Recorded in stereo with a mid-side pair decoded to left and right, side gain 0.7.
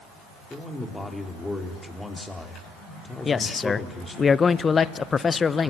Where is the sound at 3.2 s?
25° left, 0.7 m.